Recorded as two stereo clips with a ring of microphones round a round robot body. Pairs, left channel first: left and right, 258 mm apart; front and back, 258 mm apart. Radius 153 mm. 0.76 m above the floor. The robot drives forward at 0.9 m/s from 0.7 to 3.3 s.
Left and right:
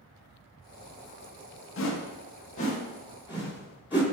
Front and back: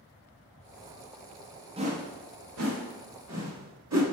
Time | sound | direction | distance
1.8 | a whoosh | 115° left | 0.7 m